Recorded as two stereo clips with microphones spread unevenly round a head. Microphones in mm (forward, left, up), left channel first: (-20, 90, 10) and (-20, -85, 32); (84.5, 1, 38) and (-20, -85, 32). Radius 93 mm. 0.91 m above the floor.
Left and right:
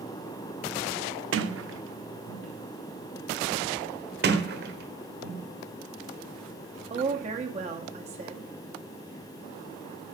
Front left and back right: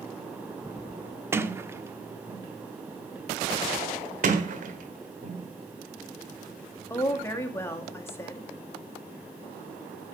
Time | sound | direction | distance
1.3 | a sliding door | 70° right | 0.9 m
4.2 | a sliding door | 115° right | 1.3 m
6.9 | a woman speaking | 35° right | 1.8 m